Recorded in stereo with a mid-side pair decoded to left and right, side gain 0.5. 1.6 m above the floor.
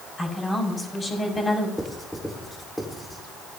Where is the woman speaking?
25° left, 5.5 m.